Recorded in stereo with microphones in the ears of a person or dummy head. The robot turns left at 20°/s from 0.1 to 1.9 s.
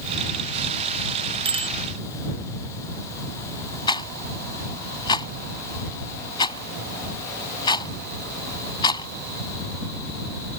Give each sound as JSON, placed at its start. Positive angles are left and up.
{"t": 1.4, "sound": "a bicycle bell", "side_deg": -25}
{"t": 3.9, "sound": "a rattle", "side_deg": 25}